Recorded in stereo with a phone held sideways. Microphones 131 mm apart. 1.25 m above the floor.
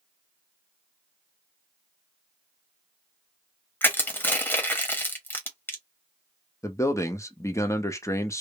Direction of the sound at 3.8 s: 15° left (ahead or behind).